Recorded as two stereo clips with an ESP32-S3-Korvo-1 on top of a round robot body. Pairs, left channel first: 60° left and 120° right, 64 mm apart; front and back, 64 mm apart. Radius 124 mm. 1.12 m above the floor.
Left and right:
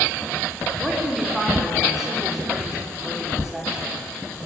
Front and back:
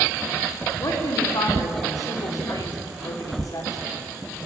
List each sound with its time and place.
0.8 s a woman speaking: 35° right, 4 m